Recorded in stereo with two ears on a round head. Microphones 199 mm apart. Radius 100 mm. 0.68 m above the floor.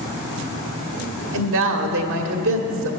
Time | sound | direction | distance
1.3 | a woman speaking | 60° right (ahead or behind) | 1.4 m